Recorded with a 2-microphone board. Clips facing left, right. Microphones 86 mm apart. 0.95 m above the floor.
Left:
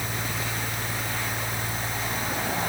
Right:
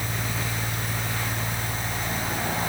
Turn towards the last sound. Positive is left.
No sound to turn to.